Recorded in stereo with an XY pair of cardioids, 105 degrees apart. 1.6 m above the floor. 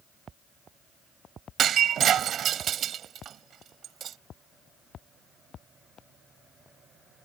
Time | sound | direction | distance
1.6 | breaking glass | 65° right | ?